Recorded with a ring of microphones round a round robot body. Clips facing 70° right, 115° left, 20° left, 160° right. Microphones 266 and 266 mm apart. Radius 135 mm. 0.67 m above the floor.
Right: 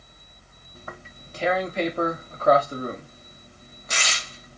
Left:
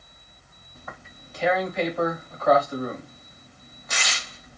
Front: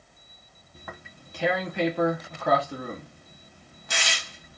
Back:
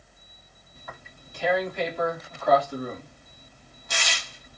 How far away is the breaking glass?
I don't hear breaking glass.